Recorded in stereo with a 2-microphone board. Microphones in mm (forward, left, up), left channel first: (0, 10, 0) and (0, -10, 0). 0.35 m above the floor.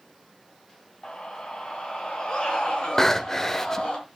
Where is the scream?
50° left (ahead or behind), 2 m; by 4.0 s 60° left (ahead or behind), 3.5 m.